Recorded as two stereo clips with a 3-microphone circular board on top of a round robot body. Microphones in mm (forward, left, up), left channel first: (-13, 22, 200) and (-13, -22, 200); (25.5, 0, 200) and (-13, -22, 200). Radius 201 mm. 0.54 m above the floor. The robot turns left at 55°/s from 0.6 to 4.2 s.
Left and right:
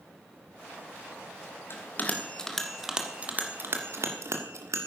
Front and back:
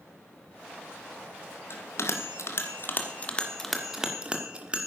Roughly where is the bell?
Ahead left.